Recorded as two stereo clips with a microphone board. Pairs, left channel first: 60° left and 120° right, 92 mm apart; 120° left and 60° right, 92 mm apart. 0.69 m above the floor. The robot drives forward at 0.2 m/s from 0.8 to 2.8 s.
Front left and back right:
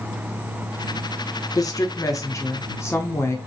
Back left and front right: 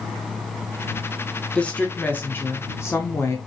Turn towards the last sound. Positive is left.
turn(degrees=90)